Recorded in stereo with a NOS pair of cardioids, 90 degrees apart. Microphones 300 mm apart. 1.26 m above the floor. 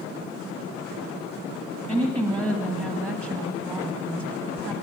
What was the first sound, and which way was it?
A woman speaking, 5° right.